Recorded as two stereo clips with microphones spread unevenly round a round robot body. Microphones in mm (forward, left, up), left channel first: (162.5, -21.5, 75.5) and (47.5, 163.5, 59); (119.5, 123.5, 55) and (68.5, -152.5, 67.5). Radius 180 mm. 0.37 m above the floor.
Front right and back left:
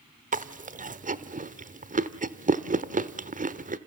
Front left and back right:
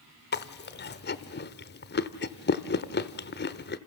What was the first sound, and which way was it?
Chewing, 105° left.